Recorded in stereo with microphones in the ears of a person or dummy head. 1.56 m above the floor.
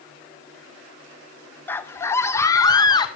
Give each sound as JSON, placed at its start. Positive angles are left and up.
{"t": 1.7, "sound": "a scream", "side_deg": 10, "distance_m": 1.0}